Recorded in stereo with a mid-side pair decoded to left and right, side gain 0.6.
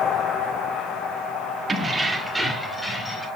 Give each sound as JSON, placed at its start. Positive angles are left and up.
{"t": 1.7, "sound": "keys jangling", "azimuth_deg": -25, "distance_m": 1.2}